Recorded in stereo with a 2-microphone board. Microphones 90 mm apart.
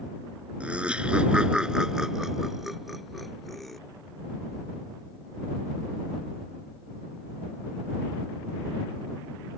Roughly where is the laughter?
Centre.